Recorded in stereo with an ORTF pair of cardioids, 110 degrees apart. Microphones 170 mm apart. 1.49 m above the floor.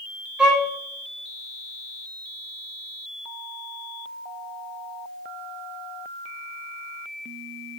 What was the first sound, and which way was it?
A violin, 5° right.